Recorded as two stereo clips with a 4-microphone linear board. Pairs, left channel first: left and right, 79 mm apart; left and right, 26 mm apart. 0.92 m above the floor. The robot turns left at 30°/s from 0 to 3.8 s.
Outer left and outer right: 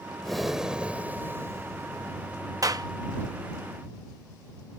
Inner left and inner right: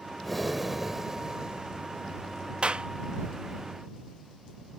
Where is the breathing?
5° left; by 2.4 s 60° right.